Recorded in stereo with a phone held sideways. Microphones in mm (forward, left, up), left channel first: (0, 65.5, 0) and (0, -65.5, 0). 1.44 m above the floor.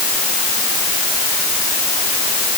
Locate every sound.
Only background noise.